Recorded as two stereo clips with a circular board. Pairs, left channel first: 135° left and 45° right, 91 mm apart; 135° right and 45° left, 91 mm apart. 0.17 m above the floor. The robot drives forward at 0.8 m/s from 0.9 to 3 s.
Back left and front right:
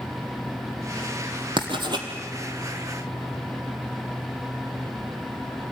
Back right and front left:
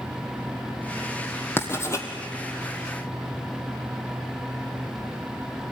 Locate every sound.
1.6 s writing: 70° right, 2.5 m; by 2.1 s 80° right, 2.5 m